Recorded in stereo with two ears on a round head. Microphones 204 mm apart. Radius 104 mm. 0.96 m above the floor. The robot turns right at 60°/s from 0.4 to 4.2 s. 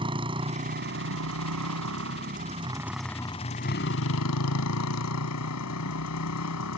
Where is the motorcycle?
155° right; by 6.8 s 70° left.